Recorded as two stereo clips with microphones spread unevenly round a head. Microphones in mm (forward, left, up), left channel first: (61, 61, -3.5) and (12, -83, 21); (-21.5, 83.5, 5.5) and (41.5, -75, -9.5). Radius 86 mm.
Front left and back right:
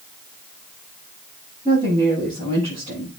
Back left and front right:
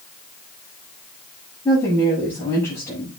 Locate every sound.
1.6 s a woman speaking: 175° right, 6.5 m